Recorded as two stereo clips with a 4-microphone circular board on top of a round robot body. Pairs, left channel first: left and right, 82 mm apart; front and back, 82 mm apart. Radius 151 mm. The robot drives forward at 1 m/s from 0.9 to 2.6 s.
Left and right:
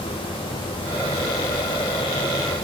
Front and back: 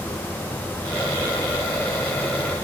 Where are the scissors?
No scissors in this recording.